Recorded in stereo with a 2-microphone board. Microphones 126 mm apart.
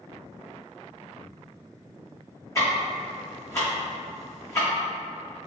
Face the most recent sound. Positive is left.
turn(degrees=25)  # may be behind; listen again after turning